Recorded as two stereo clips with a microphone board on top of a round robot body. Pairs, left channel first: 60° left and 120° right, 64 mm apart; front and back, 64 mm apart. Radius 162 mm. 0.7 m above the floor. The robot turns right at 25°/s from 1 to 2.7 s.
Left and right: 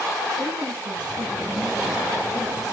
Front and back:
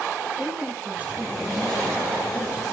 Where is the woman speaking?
110° right, 9 m; by 2.6 s 70° right, 9 m.